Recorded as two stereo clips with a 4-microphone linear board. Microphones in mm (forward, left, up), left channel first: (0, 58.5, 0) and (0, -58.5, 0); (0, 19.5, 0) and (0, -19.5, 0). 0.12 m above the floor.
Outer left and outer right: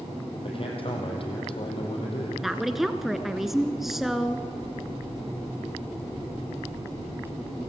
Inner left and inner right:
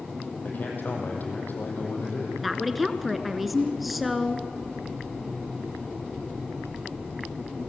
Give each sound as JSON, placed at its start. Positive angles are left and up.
{"t": 0.4, "sound": "a man speaking", "side_deg": 50, "distance_m": 5.0}
{"t": 2.4, "sound": "a woman speaking", "side_deg": 0, "distance_m": 1.3}